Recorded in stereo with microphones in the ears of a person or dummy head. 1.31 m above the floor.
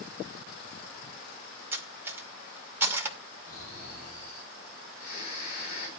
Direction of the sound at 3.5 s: 55° left (ahead or behind).